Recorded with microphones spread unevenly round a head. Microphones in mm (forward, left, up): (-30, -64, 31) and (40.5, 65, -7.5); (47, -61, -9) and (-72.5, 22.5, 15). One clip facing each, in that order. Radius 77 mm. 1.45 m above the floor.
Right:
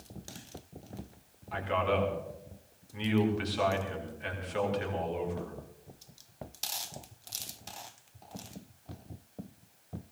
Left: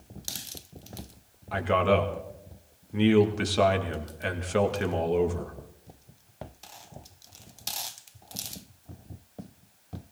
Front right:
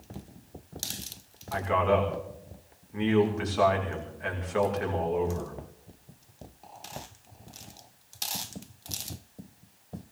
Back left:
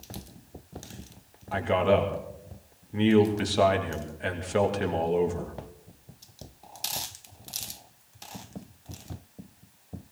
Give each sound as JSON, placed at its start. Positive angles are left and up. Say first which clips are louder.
{"t": 1.5, "sound": "a man speaking", "louder": "left 6 dB, back left 2 dB", "azimuth_deg": 85, "distance_m": 2.5}